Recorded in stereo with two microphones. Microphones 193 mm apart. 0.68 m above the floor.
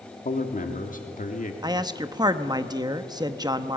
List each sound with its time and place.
0.2 s a man speaking: 45° left (ahead or behind), 1.9 m
1.6 s a man speaking: 20° right (ahead or behind), 0.9 m